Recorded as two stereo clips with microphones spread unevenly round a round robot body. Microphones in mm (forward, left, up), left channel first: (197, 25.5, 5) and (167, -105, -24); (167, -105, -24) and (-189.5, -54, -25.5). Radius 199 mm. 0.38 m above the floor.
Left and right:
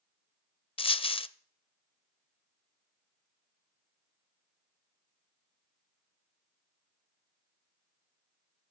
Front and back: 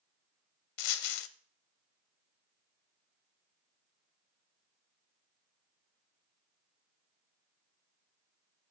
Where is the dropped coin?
15° left, 0.6 m.